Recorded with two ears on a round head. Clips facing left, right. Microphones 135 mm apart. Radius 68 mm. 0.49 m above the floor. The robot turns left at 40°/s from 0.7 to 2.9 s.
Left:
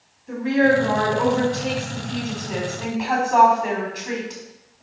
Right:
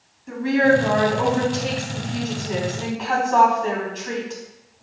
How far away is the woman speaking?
About 4 m.